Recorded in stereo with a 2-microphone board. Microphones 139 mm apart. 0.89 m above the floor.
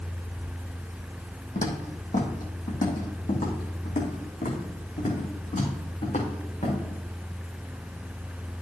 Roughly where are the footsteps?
Left.